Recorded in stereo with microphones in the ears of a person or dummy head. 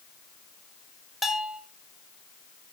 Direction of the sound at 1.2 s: Centre (ahead or behind).